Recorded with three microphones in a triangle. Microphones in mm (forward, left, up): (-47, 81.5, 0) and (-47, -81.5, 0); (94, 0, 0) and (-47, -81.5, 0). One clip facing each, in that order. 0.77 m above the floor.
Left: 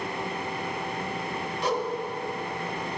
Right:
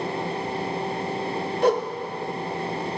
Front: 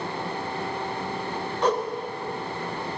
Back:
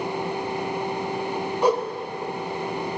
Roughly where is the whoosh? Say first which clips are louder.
Right 8 dB, back 3 dB; right.